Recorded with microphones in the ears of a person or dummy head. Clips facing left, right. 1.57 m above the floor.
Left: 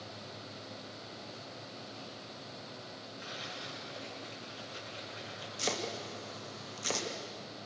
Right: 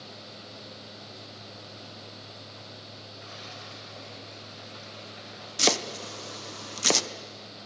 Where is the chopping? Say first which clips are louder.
Right 8 dB; 85° right, 0.9 m.